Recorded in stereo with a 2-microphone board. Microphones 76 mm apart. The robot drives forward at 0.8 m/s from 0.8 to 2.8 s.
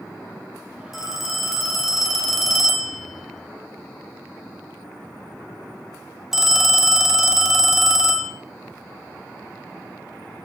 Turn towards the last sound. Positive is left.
turn(degrees=-5)  # may be behind; listen again after turning